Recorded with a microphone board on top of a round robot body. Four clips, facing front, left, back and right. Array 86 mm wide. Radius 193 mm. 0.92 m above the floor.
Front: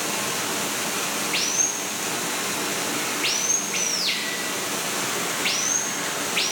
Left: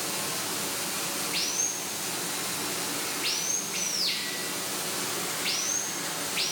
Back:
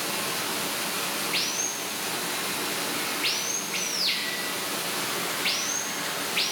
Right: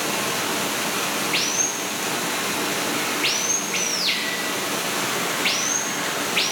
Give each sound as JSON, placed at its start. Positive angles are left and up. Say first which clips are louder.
{"t": 0.0, "sound": "running water", "louder": "right 10 dB, front 3 dB", "azimuth_deg": -70, "distance_m": 1.1}